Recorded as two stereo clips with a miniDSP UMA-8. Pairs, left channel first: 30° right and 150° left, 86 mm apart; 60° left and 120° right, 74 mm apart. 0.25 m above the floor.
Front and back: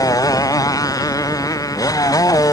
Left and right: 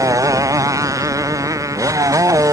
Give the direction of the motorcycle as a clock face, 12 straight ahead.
3 o'clock.